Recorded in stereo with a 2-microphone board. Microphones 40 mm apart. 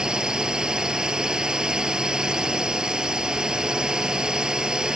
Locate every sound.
0.0 s a drone: 20° right (ahead or behind)